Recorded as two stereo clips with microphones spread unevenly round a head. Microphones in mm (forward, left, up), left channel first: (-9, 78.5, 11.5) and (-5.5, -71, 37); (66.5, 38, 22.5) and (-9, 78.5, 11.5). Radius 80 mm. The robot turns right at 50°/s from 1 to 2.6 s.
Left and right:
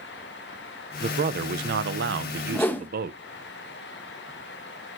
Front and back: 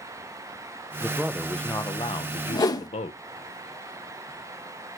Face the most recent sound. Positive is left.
turn(degrees=15)